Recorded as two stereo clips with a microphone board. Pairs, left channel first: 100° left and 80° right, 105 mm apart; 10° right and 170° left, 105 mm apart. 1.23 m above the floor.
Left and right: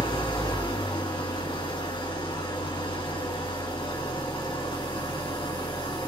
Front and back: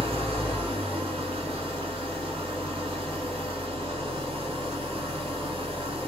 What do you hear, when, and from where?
0.0 s an engine running: 140° left, 3 m